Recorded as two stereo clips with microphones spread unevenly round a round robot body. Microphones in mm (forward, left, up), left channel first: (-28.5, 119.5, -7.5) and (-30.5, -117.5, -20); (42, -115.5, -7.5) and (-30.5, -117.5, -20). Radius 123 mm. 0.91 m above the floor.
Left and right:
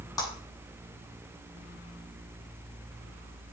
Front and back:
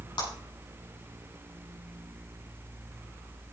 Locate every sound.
0.2 s a clap: 15° left, 7 m